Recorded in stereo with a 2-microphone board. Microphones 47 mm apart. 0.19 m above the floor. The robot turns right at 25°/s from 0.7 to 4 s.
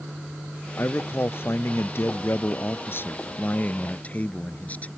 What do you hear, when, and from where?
0.8 s a man speaking: 60° left; by 4.9 s 140° left